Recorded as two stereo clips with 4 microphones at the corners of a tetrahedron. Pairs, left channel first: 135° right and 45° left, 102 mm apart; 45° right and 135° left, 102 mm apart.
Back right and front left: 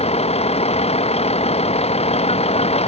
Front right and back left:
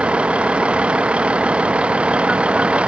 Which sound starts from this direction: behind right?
A vehicle, at 0.0 s.